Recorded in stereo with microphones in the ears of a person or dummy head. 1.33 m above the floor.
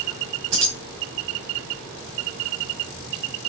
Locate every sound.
0.5 s keys jangling: 75° right (ahead or behind), 1.7 m